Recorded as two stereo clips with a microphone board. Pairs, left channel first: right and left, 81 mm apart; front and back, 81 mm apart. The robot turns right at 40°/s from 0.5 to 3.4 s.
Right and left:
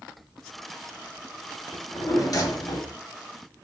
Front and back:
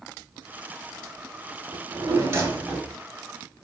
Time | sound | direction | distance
1.7 | a drawer | 150° right | 0.7 m